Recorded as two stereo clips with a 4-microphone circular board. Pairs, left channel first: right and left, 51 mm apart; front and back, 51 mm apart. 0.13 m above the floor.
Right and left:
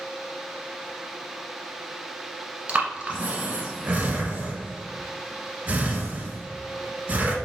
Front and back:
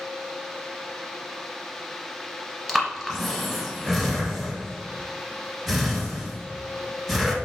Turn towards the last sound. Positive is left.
turn(degrees=85)